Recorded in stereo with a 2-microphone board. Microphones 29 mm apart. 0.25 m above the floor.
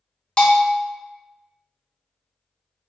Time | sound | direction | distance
0.4 | a bell | 30° left (ahead or behind) | 0.5 m